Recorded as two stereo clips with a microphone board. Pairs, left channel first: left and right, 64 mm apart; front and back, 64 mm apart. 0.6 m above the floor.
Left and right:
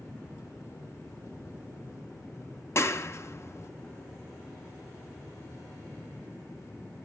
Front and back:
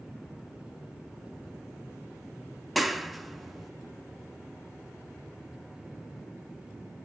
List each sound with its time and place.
2.8 s a clap: 90° left, 0.7 m